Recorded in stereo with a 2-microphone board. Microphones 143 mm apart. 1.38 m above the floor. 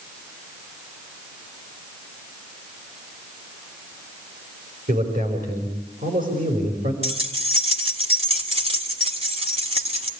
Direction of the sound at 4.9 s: 75° right (ahead or behind).